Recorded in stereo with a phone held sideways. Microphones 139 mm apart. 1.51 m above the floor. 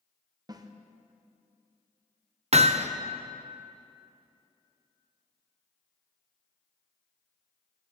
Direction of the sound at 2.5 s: 50° right (ahead or behind).